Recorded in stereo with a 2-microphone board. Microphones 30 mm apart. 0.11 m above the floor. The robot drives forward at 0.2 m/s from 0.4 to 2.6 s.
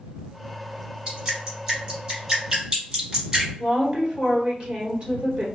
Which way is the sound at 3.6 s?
40° right (ahead or behind).